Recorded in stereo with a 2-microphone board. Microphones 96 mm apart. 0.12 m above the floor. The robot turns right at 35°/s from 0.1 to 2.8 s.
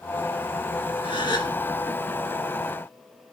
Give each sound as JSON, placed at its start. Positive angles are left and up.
{"t": 1.0, "sound": "a gasp", "side_deg": 55, "distance_m": 1.0}